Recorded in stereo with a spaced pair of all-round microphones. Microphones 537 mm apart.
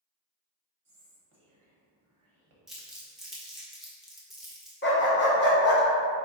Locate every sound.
0.8 s whispering: 60° right (ahead or behind), 1.1 m
2.7 s crumpling: centre (ahead or behind), 0.7 m
4.8 s a dog barking: 20° left (ahead or behind), 0.6 m